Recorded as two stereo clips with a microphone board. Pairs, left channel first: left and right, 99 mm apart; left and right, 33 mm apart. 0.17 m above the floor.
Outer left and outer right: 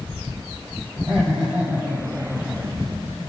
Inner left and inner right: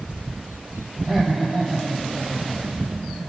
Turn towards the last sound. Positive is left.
turn(degrees=-20)  # may be behind; listen again after turning